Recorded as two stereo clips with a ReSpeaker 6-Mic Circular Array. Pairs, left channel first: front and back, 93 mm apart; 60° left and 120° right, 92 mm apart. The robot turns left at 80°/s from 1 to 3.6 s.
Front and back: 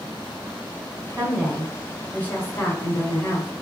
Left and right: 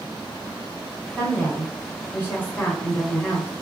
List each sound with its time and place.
1.2 s a woman speaking: 130° left, 1.2 m; by 3.5 s 60° right, 1.2 m